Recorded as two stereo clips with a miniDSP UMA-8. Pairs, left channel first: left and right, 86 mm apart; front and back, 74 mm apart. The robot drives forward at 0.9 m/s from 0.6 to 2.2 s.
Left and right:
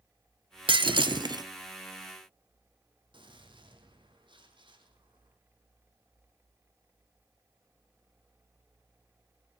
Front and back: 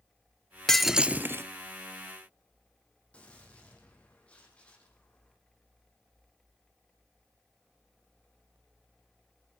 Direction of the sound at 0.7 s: 85° right.